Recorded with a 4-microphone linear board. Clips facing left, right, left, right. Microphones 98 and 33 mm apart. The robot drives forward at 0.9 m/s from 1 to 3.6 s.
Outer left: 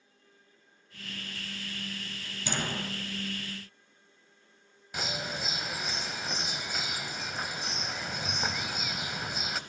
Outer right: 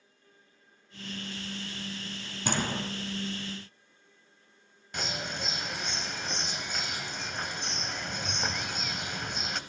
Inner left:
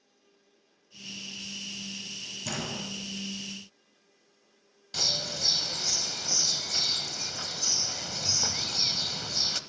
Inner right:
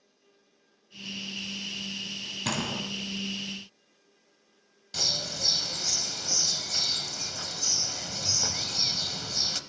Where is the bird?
5° left (ahead or behind), 0.6 m.